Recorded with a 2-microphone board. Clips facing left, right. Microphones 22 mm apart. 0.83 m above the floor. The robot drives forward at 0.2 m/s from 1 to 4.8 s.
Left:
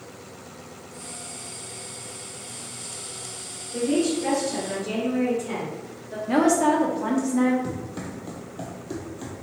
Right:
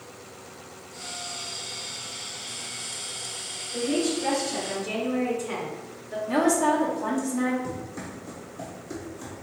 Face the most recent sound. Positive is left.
turn(degrees=25)  # may be behind; listen again after turning